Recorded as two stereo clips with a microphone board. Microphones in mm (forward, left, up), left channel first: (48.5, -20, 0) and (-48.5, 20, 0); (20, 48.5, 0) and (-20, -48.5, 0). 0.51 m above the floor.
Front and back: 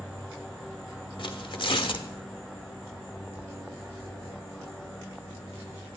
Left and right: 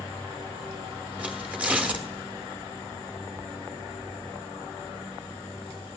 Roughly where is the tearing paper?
Ahead right.